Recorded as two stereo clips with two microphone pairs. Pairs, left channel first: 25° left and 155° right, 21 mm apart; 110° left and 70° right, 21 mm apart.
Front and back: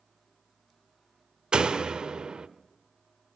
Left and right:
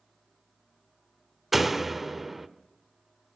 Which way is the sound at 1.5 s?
150° right.